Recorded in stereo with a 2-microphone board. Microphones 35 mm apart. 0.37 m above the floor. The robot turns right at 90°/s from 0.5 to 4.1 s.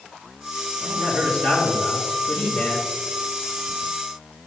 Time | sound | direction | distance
0.8 | a man speaking | 5° right | 5 m